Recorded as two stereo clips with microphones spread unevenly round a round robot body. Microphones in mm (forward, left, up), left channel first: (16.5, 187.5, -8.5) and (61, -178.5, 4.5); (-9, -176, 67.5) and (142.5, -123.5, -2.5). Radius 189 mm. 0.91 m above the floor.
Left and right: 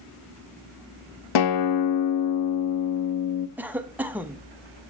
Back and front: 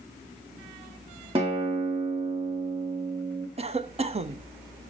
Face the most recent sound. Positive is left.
turn(degrees=5)